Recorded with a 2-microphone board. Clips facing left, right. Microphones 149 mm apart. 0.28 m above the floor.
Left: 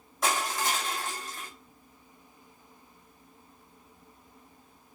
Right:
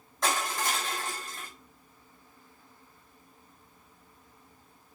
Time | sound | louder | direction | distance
0.2 | crushing | left 1 dB | 10° left (ahead or behind) | 1.4 m